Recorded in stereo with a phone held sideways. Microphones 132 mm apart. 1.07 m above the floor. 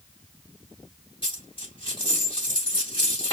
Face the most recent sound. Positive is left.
turn(degrees=40)  # may be behind; listen again after turning